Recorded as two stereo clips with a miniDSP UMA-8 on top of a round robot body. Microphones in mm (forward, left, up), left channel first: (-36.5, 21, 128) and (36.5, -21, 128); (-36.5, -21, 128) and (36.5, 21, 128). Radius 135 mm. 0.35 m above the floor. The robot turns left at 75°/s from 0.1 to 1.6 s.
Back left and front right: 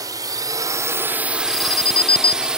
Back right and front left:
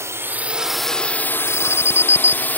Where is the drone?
15° right; by 2.6 s 100° right.